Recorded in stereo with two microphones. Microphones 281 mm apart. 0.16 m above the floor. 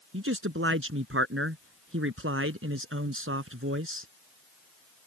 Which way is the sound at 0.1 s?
50° right (ahead or behind).